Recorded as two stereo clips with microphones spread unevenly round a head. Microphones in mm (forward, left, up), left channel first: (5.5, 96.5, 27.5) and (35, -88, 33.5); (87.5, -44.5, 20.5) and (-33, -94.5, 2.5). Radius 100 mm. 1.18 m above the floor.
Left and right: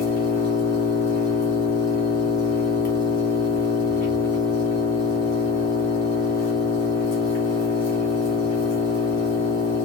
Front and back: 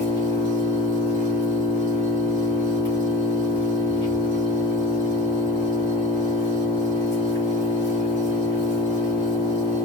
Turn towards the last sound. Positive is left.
turn(degrees=135)